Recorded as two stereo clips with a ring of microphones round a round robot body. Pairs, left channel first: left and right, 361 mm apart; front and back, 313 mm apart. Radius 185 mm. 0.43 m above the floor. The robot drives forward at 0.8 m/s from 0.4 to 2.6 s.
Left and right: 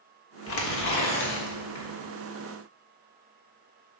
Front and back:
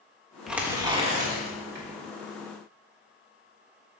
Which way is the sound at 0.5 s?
90° left.